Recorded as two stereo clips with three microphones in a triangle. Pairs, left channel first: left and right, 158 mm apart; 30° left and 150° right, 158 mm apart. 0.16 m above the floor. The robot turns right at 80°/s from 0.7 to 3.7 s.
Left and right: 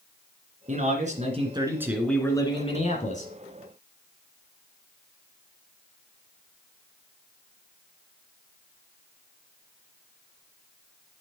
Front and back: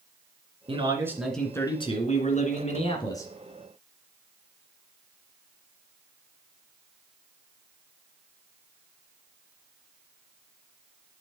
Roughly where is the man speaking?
Right.